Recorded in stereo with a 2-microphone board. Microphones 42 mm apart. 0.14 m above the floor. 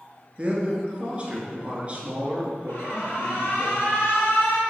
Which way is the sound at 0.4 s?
30° right (ahead or behind).